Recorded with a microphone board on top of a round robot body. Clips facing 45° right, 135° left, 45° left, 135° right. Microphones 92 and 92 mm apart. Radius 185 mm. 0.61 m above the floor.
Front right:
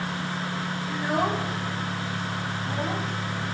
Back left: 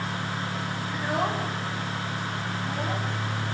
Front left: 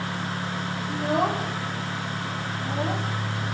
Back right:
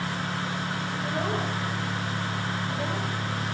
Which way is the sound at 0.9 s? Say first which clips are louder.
Front right 2 dB, front left 7 dB; 45° left.